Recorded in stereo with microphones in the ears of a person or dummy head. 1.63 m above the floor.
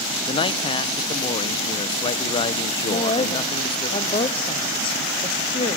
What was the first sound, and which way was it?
A man speaking, 40° left (ahead or behind).